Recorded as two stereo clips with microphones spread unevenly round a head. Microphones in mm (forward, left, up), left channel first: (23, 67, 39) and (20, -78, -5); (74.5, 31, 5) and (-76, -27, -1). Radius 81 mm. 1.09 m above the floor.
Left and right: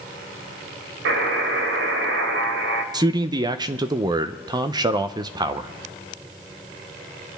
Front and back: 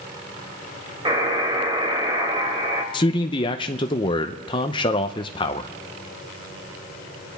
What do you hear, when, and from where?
1.1 s a buzzer: 95° right, 1.4 m
2.9 s a man speaking: 40° right, 0.6 m